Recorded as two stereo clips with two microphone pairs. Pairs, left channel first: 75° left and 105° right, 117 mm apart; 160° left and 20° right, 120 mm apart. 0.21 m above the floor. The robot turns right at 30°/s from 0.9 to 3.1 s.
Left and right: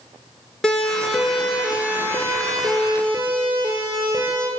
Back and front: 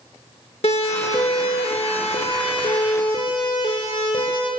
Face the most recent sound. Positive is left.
turn(degrees=-155)